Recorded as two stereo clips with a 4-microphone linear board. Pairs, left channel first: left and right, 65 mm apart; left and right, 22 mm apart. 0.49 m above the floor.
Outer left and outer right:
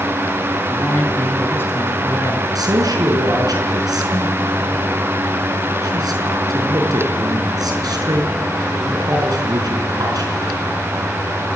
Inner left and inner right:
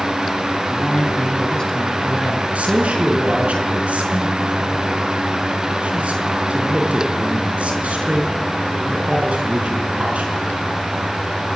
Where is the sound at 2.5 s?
80° right, 5.5 m.